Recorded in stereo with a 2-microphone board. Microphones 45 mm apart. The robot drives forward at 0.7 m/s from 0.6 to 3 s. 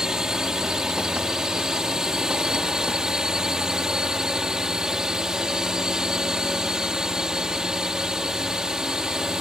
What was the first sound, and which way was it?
A drone, 15° right (ahead or behind).